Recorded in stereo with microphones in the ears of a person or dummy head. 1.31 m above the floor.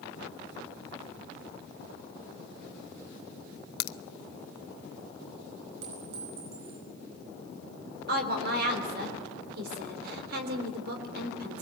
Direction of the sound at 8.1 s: 60° right (ahead or behind).